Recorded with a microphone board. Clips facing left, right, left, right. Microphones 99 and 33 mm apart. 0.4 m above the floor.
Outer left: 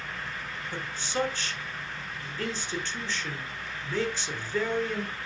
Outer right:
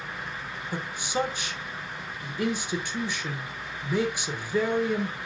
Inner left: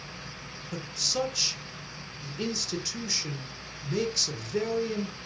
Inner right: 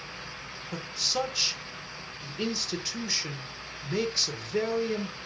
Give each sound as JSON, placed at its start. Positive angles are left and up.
{"t": 0.7, "sound": "a man speaking", "side_deg": -15, "distance_m": 1.1}